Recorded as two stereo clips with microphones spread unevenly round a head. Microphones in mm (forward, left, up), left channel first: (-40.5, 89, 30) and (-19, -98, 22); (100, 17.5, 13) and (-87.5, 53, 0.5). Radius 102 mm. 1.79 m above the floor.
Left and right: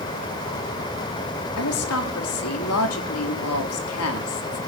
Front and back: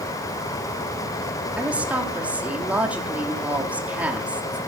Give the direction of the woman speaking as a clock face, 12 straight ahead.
9 o'clock.